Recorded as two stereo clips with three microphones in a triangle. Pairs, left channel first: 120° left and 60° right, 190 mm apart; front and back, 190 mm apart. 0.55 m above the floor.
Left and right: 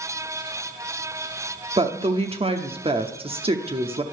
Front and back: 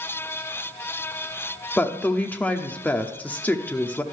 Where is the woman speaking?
75° right, 0.9 m.